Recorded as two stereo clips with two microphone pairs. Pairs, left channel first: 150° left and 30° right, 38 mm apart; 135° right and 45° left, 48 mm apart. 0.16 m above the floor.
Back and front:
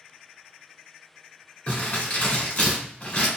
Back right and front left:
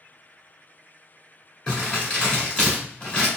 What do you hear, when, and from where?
1.7 s crumpling: 160° left, 1.5 m